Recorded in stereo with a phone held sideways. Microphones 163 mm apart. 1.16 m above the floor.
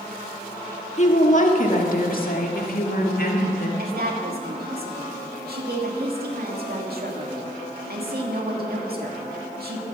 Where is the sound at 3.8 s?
70° right (ahead or behind), 2.5 m.